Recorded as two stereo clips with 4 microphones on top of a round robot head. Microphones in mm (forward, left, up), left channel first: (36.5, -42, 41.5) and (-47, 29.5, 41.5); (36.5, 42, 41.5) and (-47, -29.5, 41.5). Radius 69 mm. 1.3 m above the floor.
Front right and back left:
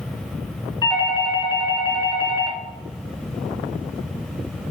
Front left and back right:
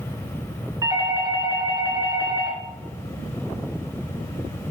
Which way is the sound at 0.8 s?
85° right.